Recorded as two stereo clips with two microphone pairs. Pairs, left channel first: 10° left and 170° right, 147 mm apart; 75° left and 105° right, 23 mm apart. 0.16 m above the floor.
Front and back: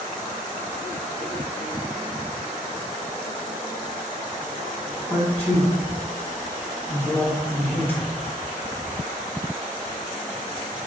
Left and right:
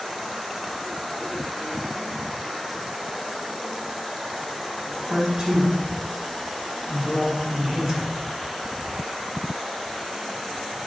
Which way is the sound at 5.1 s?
55° right.